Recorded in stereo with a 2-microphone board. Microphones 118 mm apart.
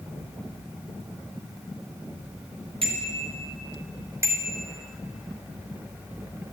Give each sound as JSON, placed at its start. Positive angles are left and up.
{"t": 2.8, "sound": "a bicycle bell", "side_deg": -50, "distance_m": 4.0}